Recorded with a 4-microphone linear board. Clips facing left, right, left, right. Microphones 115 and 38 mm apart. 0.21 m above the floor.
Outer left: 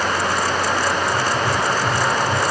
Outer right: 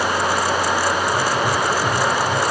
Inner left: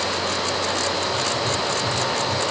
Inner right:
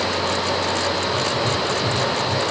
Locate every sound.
1.1 s writing: 15° right (ahead or behind), 1.8 m